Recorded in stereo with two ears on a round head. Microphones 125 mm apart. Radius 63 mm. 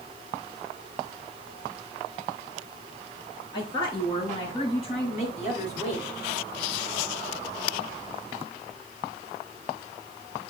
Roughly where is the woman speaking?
Left.